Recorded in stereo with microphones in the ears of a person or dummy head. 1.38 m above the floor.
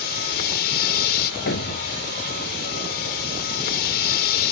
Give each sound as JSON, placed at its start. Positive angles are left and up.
{"t": 0.0, "sound": "a vehicle", "side_deg": 50}
{"t": 1.5, "sound": "a thud", "side_deg": 65}